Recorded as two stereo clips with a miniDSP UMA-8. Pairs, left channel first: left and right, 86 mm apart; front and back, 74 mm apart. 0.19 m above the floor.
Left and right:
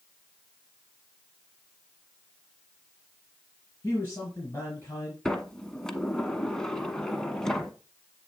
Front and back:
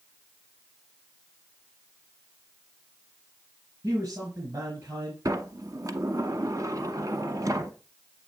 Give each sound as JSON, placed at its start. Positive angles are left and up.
{"t": 3.8, "sound": "a man speaking", "azimuth_deg": 150, "distance_m": 3.5}
{"t": 5.2, "sound": "a sliding door", "azimuth_deg": 170, "distance_m": 0.8}